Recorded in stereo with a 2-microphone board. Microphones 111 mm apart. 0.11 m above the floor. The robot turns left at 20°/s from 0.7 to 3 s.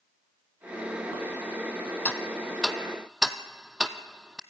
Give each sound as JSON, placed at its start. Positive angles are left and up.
{"t": 2.0, "sound": "ticking", "side_deg": 15, "distance_m": 1.0}